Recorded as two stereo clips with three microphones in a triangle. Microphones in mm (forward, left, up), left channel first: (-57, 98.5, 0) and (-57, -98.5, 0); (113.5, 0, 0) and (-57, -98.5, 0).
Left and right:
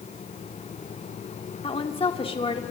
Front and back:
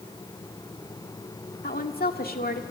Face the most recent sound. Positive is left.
turn(degrees=35)